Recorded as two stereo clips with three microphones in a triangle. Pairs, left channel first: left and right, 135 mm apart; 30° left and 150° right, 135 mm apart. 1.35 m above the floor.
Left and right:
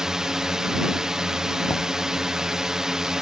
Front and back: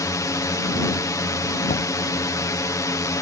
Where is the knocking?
15° left.